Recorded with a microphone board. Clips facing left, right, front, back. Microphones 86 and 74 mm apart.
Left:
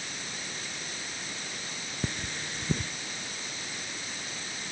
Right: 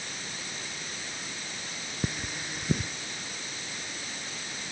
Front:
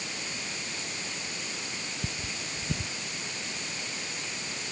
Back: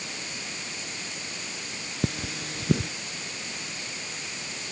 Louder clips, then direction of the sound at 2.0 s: Right 1 dB, back 6 dB; 170° right.